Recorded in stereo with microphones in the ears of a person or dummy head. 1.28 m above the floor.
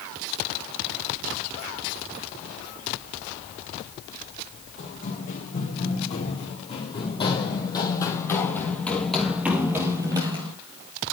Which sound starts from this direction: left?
Running footsteps, at 4.8 s.